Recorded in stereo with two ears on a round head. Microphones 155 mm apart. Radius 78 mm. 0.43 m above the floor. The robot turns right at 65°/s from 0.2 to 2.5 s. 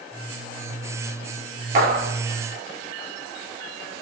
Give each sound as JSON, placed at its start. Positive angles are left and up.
{"t": 1.8, "sound": "a clap", "side_deg": -50, "distance_m": 5.5}